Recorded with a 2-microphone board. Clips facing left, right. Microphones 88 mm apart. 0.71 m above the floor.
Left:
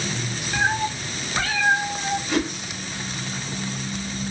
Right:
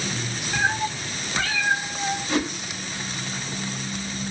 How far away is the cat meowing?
About 1.7 m.